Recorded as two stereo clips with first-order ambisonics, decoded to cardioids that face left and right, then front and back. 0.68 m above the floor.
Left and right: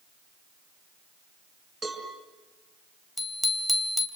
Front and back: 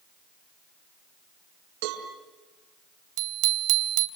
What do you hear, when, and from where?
1.8 s a cowbell: 165° right, 5.5 m
3.2 s a bicycle bell: straight behind, 3 m